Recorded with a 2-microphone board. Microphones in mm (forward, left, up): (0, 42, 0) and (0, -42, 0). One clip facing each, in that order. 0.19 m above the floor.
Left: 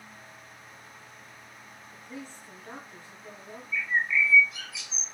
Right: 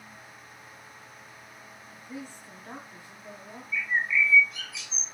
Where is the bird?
Centre (ahead or behind), 1.0 m.